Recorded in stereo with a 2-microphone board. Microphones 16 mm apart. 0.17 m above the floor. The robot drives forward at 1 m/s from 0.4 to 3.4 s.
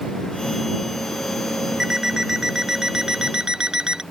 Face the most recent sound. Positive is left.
turn(degrees=-45)  # may be behind; listen again after turning